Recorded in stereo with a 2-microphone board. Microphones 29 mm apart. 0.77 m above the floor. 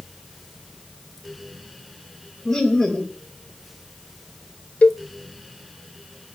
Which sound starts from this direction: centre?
Laughter, at 2.5 s.